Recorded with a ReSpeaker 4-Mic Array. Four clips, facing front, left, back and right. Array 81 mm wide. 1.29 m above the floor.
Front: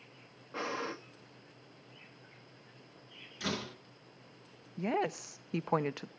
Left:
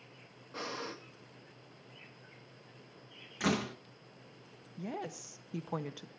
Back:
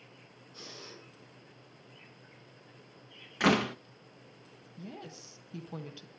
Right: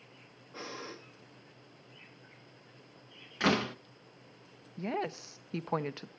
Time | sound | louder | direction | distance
0.5 | breathing | left 3 dB, front 13 dB | 15° left | 1.5 m
3.4 | a door slam | right 4 dB, back 12 dB | 160° right | 0.6 m
4.8 | a woman speaking | right 6 dB, front 13 dB | 25° right | 0.8 m